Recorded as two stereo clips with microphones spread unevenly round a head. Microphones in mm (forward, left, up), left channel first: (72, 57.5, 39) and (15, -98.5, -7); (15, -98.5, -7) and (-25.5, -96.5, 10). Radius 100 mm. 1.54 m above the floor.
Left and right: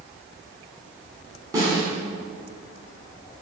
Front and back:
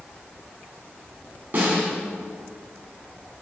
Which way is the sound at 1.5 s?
170° left.